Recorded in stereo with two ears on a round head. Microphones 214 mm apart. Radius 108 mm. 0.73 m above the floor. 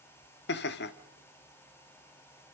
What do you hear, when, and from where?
0.5 s laughter: 45° left (ahead or behind), 1.3 m